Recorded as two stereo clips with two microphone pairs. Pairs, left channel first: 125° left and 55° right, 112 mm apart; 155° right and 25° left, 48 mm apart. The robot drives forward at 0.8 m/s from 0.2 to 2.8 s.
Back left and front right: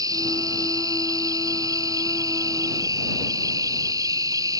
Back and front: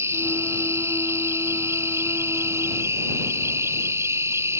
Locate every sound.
0.0 s an insect: straight ahead; by 4.6 s 5° left